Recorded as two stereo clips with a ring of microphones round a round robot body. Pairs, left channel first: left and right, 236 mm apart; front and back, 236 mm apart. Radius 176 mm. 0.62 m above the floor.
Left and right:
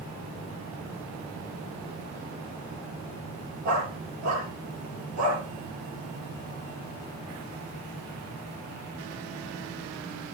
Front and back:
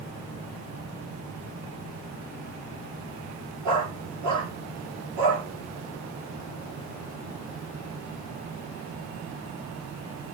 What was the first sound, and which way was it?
A dog barking, 155° right.